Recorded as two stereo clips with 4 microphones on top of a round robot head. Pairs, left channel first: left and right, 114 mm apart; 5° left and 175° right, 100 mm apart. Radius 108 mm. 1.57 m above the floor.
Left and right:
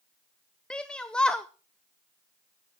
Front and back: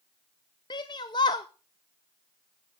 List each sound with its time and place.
0.7 s a shout: 10° left, 0.5 m